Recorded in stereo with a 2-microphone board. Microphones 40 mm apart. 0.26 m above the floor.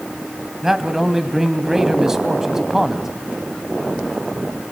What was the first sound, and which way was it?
A man speaking, 10° right (ahead or behind).